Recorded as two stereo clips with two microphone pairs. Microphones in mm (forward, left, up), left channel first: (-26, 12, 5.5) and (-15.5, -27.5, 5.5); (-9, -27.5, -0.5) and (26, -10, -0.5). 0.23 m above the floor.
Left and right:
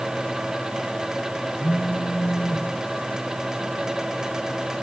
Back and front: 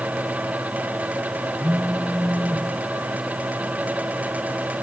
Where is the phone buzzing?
115° left, 2.5 m.